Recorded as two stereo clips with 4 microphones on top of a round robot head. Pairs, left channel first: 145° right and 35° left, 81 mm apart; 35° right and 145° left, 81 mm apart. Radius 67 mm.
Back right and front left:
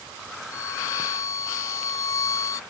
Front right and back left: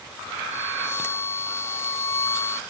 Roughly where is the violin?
Right.